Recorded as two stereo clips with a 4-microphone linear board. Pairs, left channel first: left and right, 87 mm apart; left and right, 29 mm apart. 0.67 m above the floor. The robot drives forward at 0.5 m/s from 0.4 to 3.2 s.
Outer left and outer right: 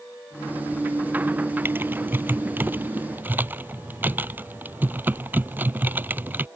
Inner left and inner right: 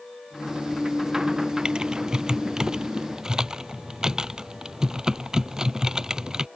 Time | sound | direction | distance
1.6 | typing on a keyboard | 25° right (ahead or behind) | ?